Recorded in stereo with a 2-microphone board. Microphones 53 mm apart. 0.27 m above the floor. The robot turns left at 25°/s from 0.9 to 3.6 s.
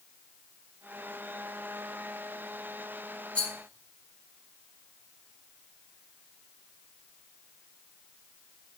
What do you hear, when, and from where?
3.4 s a rattle: 20° left (ahead or behind), 0.8 m; by 3.5 s 15° left (ahead or behind), 0.8 m